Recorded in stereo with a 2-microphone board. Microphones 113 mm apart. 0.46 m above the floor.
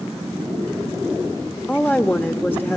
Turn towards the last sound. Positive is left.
turn(degrees=15)  # may be behind; listen again after turning